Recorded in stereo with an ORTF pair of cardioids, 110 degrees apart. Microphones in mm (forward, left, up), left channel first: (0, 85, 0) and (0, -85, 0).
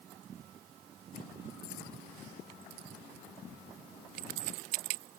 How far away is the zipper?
No zipper in this recording.